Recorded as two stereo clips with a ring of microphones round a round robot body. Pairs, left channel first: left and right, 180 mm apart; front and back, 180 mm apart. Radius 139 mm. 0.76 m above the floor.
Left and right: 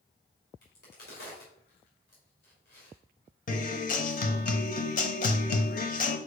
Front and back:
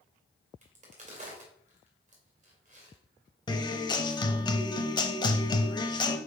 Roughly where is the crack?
Behind left.